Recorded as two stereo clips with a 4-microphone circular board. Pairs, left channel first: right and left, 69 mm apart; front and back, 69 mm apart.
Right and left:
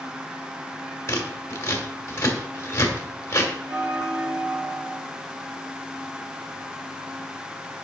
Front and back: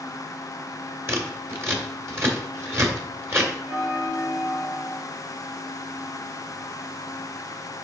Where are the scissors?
135° right, 1.9 m.